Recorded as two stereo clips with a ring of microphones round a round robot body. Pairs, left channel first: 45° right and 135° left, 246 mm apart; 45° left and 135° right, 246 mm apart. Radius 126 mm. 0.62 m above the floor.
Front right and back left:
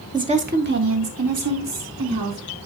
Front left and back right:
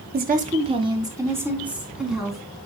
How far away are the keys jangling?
I don't hear keys jangling.